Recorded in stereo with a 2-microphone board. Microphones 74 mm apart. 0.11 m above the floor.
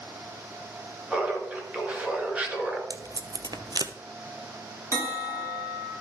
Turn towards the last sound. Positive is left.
turn(degrees=-40)  # may be behind; listen again after turning